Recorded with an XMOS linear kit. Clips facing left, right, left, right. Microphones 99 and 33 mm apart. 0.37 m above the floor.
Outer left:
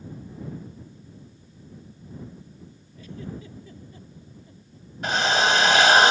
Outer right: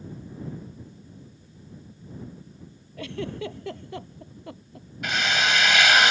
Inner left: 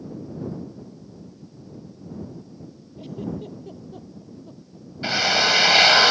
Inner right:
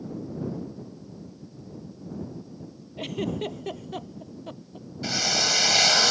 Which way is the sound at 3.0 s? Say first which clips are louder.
Outer right 6 dB, inner right 3 dB; 85° right.